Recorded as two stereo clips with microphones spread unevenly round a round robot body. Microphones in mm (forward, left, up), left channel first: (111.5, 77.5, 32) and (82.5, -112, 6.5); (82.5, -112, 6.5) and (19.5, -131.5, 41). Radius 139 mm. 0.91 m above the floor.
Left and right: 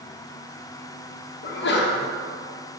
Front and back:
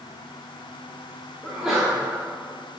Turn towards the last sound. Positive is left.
turn(degrees=85)